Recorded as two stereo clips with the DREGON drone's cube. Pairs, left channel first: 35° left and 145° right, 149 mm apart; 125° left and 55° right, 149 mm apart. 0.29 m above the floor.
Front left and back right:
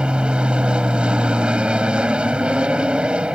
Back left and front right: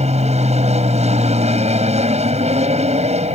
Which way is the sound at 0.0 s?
65° right.